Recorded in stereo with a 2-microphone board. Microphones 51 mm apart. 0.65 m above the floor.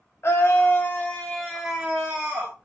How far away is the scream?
About 0.9 m.